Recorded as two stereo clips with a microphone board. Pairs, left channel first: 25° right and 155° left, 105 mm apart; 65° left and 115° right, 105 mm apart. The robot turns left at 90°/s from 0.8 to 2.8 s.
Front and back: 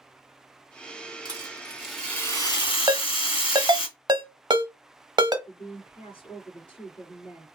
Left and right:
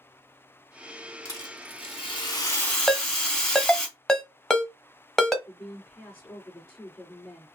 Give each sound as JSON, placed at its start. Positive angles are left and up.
{"t": 1.2, "sound": "a rattle", "azimuth_deg": 125, "distance_m": 3.0}
{"t": 2.9, "sound": "a ringtone", "azimuth_deg": 150, "distance_m": 0.8}
{"t": 5.5, "sound": "a woman speaking", "azimuth_deg": -5, "distance_m": 2.5}